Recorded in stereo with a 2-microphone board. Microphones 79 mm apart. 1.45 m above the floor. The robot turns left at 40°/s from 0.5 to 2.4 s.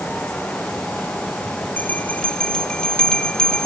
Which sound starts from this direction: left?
A bell, at 1.8 s.